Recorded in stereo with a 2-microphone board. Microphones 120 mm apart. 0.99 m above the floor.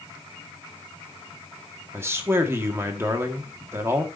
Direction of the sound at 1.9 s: 20° right (ahead or behind).